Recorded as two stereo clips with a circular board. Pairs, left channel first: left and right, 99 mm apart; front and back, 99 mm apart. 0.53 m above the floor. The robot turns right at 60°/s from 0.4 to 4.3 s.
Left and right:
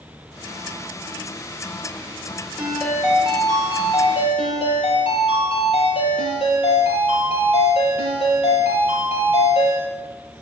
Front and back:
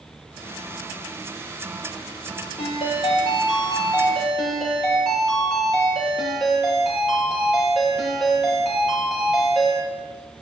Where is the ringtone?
15° right, 5.5 m; by 9.8 s 85° left, 5.5 m.